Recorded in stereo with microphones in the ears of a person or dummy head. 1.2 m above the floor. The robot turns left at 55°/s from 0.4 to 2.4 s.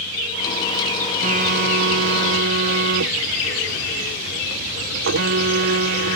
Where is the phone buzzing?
45° right; by 6.2 s 110° right.